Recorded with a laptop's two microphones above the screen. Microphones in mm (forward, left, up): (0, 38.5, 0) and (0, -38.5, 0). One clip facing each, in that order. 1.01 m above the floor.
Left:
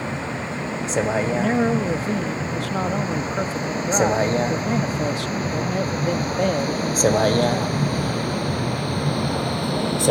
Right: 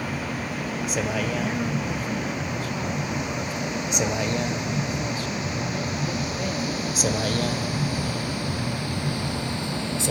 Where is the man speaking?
80° left.